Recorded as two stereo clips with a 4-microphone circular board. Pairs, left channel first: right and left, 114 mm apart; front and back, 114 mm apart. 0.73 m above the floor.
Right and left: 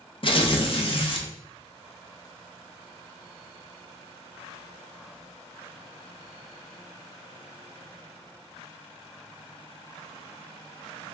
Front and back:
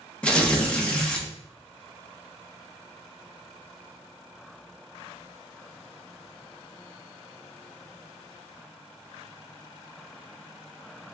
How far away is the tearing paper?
About 0.7 m.